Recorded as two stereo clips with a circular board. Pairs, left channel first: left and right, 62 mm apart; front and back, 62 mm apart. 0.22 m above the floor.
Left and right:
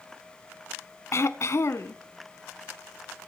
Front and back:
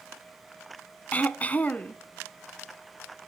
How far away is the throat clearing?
About 0.9 m.